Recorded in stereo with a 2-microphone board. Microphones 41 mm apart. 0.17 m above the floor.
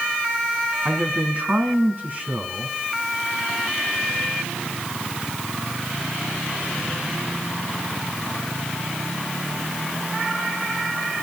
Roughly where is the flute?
No flute in this recording.